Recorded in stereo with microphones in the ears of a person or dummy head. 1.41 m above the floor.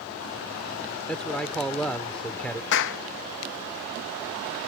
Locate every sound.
1.1 s a man speaking: 10° left (ahead or behind)
2.7 s a clap: 65° left (ahead or behind)